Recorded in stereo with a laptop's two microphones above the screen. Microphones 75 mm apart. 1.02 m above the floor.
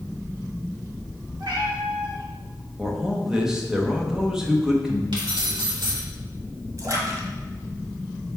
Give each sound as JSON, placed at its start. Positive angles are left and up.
{"t": 1.4, "sound": "a cat meowing", "side_deg": -75, "distance_m": 1.3}
{"t": 2.8, "sound": "a man speaking", "side_deg": -10, "distance_m": 1.0}
{"t": 5.1, "sound": "keys jangling", "side_deg": -85, "distance_m": 2.0}
{"t": 6.8, "sound": "a splash", "side_deg": -50, "distance_m": 1.4}